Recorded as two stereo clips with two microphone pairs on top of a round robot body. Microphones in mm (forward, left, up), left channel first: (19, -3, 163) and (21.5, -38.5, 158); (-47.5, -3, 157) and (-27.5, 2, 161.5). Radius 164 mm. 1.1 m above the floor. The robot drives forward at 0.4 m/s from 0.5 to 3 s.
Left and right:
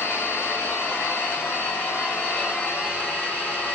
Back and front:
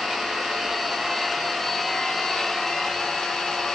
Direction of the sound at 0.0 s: 85° left.